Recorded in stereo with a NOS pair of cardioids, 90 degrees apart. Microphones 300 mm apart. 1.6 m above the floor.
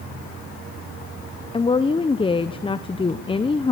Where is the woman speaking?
15° left, 0.8 m.